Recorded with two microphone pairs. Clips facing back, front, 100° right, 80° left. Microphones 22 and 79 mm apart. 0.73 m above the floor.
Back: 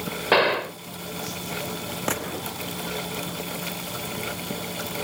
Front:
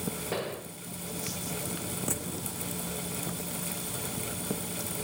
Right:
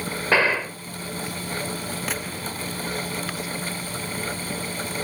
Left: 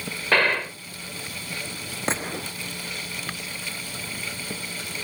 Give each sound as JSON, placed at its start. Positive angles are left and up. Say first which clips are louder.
{"t": 0.3, "sound": "a gunshot", "louder": "back 20 dB, right 1 dB", "azimuth_deg": 175}
{"t": 2.1, "sound": "a gunshot", "louder": "back 7 dB, left 2 dB", "azimuth_deg": 140}